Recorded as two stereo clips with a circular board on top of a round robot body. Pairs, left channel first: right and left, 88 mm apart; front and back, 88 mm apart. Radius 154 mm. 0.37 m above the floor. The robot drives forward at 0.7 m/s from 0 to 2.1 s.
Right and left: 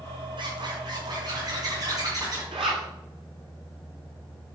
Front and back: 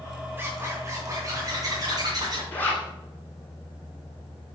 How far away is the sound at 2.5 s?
About 1.6 m.